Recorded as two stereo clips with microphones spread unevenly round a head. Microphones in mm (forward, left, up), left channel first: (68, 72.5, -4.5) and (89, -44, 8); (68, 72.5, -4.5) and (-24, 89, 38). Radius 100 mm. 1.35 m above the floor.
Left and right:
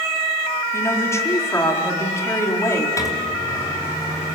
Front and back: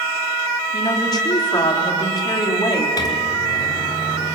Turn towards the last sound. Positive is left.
turn(degrees=40)